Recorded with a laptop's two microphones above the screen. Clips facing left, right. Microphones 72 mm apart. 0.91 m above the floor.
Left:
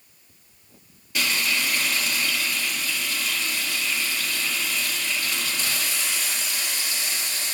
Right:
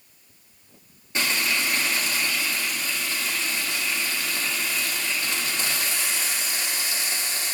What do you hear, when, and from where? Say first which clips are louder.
1.1 s frying: even; 30° right (ahead or behind), 1.6 m